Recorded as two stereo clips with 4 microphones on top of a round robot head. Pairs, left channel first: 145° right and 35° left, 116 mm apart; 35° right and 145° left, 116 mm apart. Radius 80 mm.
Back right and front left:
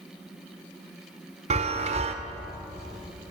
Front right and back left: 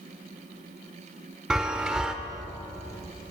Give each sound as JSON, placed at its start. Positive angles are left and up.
{"t": 1.5, "sound": "a chime", "azimuth_deg": 60, "distance_m": 1.4}